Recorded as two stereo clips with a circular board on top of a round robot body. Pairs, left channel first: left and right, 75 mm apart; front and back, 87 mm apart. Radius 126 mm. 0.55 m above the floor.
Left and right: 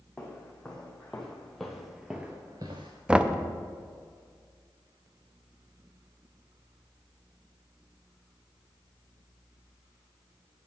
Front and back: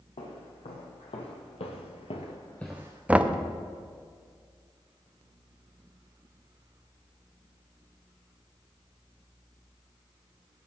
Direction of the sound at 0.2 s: 10° left.